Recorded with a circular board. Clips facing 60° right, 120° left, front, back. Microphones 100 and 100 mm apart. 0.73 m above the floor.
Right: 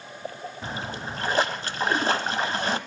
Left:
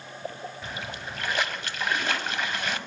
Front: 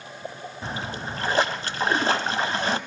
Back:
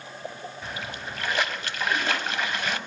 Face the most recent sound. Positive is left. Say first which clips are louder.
# right 7 dB, front 6 dB
turn(degrees=-30)